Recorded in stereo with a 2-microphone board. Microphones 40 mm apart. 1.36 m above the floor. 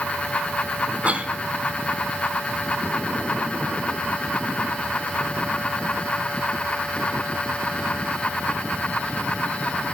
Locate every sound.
1.0 s a cough: 35° right (ahead or behind), 1.5 m